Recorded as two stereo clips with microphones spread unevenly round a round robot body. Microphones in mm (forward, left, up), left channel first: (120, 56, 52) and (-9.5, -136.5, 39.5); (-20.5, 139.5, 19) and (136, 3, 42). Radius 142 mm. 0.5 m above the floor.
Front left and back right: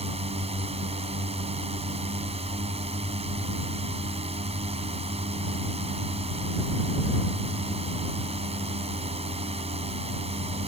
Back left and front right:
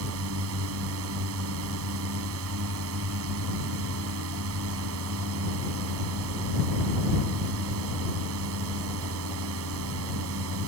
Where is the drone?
60° right.